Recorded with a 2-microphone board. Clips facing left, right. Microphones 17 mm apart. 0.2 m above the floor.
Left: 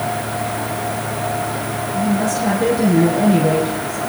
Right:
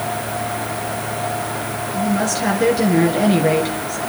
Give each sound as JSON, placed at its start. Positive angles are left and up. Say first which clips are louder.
{"t": 1.9, "sound": "a woman speaking", "louder": "left 1 dB", "side_deg": -45, "distance_m": 3.5}